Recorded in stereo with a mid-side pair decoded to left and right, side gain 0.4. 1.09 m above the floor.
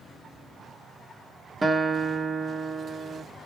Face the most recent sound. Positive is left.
turn(degrees=-30)